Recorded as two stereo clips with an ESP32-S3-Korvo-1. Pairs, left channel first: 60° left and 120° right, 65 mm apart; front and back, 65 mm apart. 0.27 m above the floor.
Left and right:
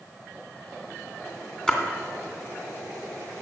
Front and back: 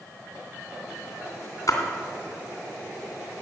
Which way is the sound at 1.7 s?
15° right.